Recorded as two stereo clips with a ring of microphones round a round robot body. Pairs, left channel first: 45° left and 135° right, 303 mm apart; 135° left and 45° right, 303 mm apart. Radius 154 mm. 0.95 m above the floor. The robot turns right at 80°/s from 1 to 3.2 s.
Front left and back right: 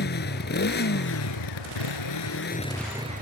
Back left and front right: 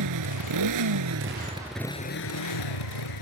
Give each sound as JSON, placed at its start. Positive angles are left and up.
{"t": 0.0, "sound": "a motorcycle", "azimuth_deg": -15}